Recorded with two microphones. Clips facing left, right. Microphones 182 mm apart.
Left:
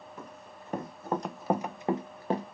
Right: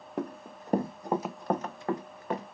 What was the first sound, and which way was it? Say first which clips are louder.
Running footsteps: right 16 dB; 65° right (ahead or behind).